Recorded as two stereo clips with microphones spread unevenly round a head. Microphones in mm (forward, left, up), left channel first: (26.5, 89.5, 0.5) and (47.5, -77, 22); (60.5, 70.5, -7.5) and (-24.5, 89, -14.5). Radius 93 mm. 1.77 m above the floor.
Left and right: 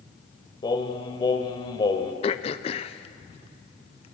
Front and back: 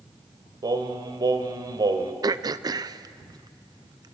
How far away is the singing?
About 1.9 m.